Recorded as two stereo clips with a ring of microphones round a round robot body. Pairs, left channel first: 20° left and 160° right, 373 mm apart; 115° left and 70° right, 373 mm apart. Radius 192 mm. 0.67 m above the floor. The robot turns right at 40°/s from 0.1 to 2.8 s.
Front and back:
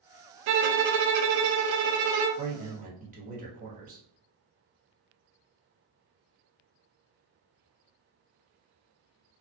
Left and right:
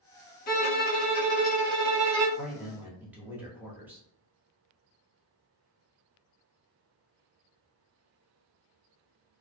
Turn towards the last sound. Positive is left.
turn(degrees=-145)